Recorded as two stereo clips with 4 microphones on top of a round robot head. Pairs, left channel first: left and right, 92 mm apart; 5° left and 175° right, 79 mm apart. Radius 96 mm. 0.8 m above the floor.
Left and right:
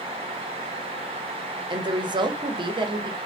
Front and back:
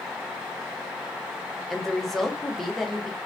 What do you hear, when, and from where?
1.7 s a woman speaking: 80° right, 0.7 m